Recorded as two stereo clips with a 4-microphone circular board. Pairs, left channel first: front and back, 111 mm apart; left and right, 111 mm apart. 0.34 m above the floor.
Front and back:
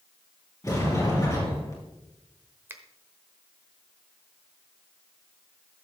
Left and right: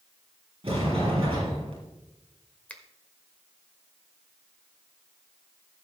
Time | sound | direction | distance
0.6 | a sliding door | 55° right | 4 m
2.7 | a finger snap | 145° left | 1.1 m